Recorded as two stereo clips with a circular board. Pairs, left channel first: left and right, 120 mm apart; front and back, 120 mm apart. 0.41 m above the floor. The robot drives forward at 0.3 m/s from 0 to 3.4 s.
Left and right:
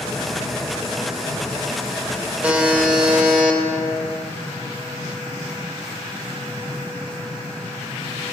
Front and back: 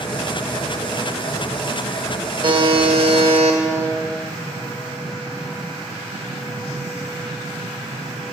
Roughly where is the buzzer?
Behind.